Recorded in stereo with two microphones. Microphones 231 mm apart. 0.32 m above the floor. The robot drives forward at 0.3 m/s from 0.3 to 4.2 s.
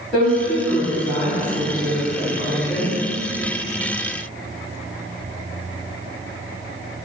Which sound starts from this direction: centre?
A woman speaking, at 0.1 s.